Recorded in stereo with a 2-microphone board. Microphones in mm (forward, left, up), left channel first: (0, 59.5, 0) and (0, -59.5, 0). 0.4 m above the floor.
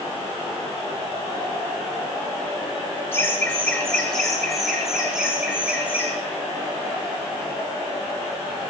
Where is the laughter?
20° left (ahead or behind), 3.5 m; by 6.1 s 15° right (ahead or behind), 4.5 m.